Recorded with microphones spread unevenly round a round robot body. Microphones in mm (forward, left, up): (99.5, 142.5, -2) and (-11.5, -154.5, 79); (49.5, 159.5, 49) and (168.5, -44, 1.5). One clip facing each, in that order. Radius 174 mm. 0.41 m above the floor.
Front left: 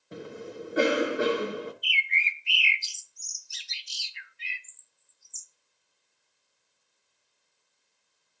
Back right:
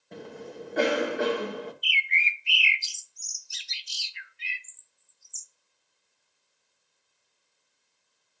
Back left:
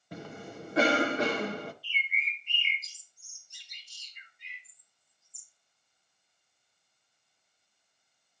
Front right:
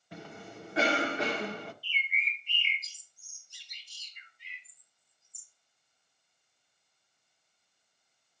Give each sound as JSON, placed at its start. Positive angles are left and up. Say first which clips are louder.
{"t": 0.1, "sound": "a cough", "louder": "front left 1 dB, back left 3 dB", "azimuth_deg": 110, "distance_m": 0.8}
{"t": 1.8, "sound": "a bird", "louder": "back right 1 dB, even", "azimuth_deg": -120, "distance_m": 0.6}